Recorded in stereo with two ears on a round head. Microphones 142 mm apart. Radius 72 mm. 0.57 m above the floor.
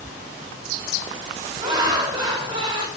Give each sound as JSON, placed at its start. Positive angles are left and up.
{"t": 1.6, "sound": "laughter", "side_deg": -30, "distance_m": 2.5}